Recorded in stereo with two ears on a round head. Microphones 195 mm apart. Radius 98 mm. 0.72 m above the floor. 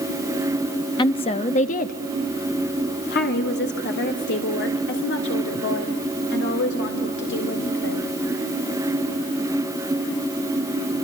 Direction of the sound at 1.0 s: 20° left (ahead or behind).